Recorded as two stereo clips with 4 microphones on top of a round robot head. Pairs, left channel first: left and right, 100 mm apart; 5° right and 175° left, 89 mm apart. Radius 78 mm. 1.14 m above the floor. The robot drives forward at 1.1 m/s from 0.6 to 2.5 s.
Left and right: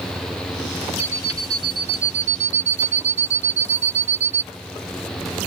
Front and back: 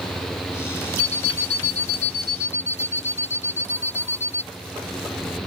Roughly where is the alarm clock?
Ahead.